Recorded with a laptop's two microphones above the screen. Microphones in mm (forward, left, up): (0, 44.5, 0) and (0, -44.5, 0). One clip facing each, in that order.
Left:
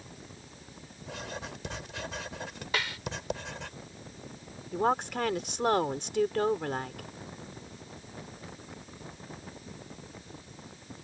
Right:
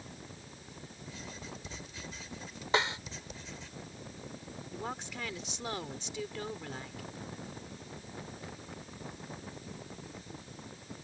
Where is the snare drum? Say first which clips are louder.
Right 4 dB; 25° right (ahead or behind).